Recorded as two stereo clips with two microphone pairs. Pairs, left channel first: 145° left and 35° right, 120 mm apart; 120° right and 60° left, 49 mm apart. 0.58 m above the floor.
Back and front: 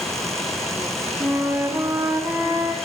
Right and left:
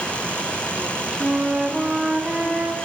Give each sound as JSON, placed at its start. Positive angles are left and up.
{"t": 1.2, "sound": "a flute", "azimuth_deg": 10, "distance_m": 1.1}